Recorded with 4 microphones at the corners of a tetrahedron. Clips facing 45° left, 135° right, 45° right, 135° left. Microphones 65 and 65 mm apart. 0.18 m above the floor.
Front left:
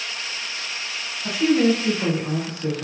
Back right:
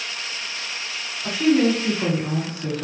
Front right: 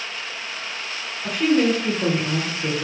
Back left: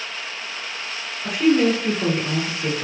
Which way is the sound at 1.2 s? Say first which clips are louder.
Even, back left 1 dB; 160° right.